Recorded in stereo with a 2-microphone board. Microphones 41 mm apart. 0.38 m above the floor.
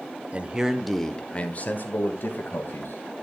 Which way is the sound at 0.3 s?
30° right (ahead or behind).